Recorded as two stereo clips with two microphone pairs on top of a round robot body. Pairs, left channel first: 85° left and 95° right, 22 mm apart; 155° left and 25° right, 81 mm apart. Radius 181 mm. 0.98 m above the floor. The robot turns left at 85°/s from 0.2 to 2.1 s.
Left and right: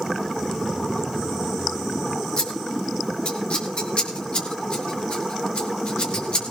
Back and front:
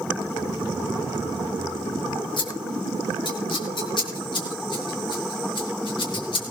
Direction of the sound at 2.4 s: 125° left.